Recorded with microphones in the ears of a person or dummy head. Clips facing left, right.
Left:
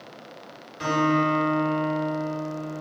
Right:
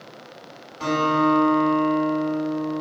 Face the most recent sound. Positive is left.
turn(degrees=30)  # may be behind; listen again after turning